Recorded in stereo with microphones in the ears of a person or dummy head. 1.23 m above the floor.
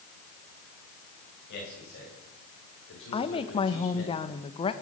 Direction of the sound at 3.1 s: 30° left (ahead or behind).